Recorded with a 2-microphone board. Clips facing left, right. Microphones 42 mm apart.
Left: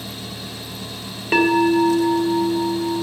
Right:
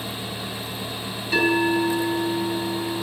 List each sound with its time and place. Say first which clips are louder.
1.3 s a bell: left 4 dB; 40° left (ahead or behind), 2.5 m